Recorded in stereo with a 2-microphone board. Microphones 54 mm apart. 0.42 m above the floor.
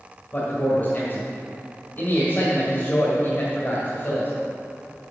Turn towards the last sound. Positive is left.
turn(degrees=40)  # may be behind; listen again after turning